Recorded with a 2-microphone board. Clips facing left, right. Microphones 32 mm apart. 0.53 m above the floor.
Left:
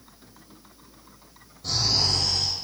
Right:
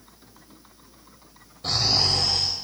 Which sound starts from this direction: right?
Snoring, at 1.6 s.